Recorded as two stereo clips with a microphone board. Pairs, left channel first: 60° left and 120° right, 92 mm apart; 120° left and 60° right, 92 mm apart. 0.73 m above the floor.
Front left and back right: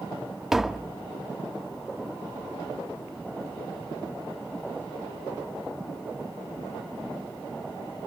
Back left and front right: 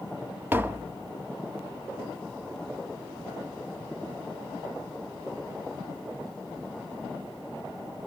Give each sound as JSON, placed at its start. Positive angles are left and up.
{"t": 0.5, "sound": "tapping", "azimuth_deg": -40, "distance_m": 0.7}